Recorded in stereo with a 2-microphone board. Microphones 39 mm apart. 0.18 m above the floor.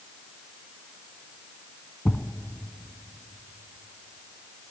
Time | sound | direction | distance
2.0 | a thud | 15° left (ahead or behind) | 0.7 m